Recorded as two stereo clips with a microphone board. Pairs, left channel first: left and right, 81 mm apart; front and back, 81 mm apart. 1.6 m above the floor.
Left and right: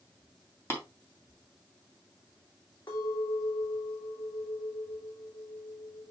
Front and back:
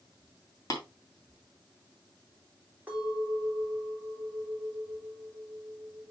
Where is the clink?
110° left, 3.5 m.